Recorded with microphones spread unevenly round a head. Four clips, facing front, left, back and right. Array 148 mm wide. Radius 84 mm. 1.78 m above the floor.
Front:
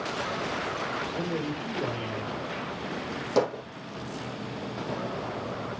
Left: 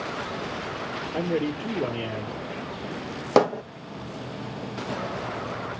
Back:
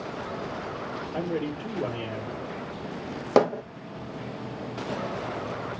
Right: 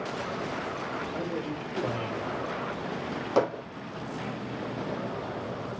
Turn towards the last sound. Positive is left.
turn(degrees=130)